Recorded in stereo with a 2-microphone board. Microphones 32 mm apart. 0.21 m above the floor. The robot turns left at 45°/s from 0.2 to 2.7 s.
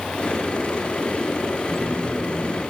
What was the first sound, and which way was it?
A phone buzzing, 110° right.